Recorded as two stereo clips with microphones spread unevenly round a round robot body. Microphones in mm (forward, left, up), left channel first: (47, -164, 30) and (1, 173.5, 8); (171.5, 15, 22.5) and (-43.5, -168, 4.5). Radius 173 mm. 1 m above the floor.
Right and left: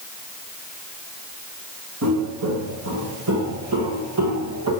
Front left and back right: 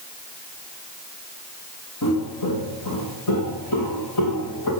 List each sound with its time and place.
2.0 s footsteps: 55° left, 6 m